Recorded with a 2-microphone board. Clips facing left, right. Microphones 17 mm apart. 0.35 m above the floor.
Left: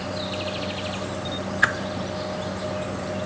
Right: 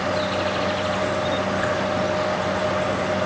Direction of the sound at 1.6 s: 40° left (ahead or behind).